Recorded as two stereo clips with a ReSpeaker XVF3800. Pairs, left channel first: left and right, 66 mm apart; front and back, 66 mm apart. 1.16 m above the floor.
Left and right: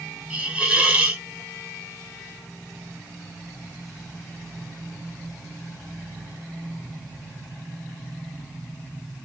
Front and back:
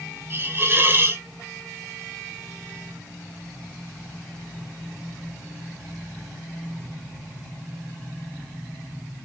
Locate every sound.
0.3 s a hiss: 150° right, 0.6 m